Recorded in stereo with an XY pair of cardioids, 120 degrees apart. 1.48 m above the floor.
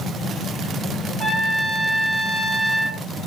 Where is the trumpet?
10° right, 6.5 m.